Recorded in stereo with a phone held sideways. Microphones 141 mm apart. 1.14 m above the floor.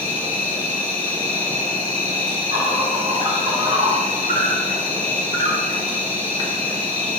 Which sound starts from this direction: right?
An insect, at 0.0 s.